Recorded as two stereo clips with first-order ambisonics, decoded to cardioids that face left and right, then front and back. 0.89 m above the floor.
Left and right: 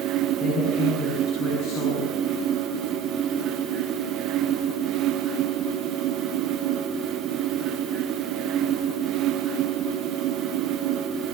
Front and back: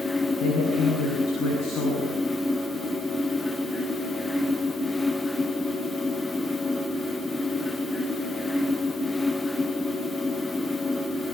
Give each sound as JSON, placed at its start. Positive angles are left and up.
{"t": 0.4, "sound": "a woman speaking", "azimuth_deg": 50, "distance_m": 10.0}